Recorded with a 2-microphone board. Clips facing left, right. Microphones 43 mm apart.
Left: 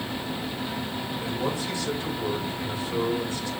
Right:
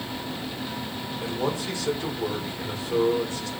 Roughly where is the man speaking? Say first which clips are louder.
Right 2 dB; right.